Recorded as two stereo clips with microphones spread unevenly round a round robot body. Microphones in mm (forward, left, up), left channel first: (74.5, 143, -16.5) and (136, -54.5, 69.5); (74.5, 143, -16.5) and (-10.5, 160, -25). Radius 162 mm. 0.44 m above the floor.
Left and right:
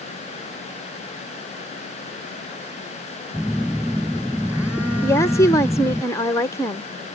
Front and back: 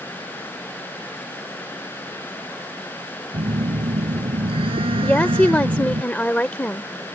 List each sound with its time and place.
3.3 s a phone buzzing: 160° right
5.0 s a woman speaking: 60° left